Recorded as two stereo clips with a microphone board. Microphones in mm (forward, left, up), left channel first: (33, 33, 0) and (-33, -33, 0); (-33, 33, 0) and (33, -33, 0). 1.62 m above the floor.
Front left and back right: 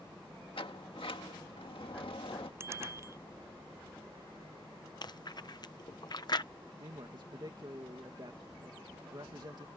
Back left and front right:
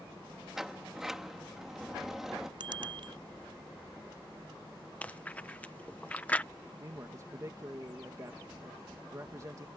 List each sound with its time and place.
0.6 s a sliding door: 40° left
2.6 s a bicycle bell: 75° right
5.0 s chewing: 65° left
6.8 s a man speaking: 100° right